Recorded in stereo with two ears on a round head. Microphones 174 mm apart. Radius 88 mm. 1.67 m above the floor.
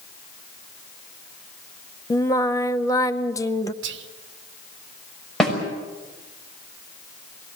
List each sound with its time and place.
2.1 s singing: 15° left (ahead or behind), 0.7 m
3.8 s whispering: 65° right (ahead or behind), 1.2 m
5.4 s a snare drum: centre (ahead or behind), 6 m